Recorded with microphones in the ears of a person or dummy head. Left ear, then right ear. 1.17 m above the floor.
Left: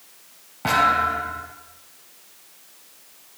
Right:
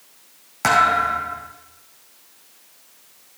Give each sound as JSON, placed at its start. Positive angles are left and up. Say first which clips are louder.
{"t": 0.6, "sound": "a thud", "louder": "right 2 dB", "side_deg": -60, "distance_m": 3.0}